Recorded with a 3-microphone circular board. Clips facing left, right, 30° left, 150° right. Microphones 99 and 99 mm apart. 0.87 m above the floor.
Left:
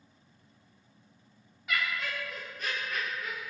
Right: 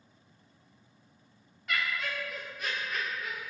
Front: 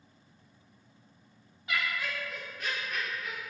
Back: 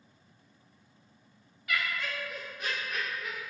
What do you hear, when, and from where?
1.7 s laughter: 10° left, 0.8 m; by 3.5 s 160° right, 1.1 m